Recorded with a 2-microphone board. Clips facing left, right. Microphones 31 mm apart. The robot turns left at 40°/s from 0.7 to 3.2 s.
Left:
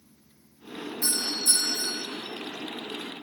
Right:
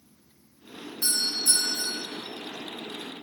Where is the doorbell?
60° right, 5 m; by 2.0 s 100° right, 5 m.